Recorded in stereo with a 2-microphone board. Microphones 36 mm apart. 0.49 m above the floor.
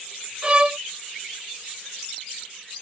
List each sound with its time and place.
0.4 s a violin: 35° right (ahead or behind)